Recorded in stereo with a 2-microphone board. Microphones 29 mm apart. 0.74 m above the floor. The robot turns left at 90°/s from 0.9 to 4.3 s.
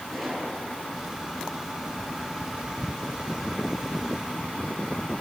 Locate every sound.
0.1 s a gunshot: centre (ahead or behind), 8 m; by 0.9 s 5° right (ahead or behind), 8 m